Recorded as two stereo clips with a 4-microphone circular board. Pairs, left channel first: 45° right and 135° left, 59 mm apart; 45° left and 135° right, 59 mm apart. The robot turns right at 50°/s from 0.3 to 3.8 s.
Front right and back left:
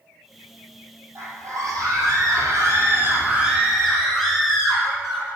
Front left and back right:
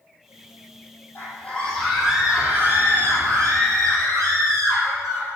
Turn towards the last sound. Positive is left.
turn(degrees=-130)